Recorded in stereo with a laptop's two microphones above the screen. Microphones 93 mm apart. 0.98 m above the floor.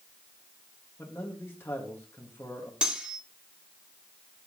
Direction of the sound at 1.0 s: 25° left (ahead or behind).